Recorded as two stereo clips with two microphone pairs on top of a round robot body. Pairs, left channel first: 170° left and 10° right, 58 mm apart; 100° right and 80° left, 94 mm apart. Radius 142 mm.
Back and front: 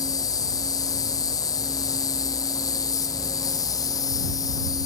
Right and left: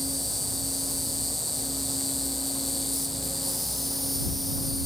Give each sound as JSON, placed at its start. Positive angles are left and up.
{"t": 0.0, "sound": "an insect", "azimuth_deg": 170}